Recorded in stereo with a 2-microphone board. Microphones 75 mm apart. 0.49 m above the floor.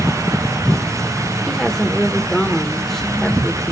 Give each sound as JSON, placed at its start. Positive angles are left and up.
{"t": 1.5, "sound": "a woman speaking", "side_deg": 5, "distance_m": 1.1}